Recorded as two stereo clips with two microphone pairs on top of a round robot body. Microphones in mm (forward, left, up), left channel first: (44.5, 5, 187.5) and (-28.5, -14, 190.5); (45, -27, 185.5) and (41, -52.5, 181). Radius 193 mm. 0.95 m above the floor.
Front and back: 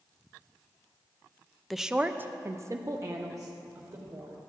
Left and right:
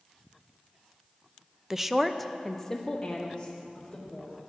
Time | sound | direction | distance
1.7 | a woman speaking | 70° right | 0.6 m